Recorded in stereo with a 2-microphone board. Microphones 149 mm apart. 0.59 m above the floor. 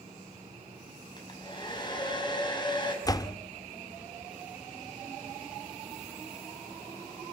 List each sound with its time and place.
1.2 s a hair dryer: 30° left (ahead or behind), 5 m
3.0 s a door slam: 25° left (ahead or behind), 0.8 m